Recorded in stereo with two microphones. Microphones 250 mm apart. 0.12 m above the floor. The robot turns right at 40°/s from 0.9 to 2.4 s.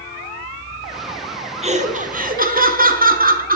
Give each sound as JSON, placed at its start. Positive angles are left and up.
{"t": 1.6, "sound": "laughter", "azimuth_deg": -130, "distance_m": 1.3}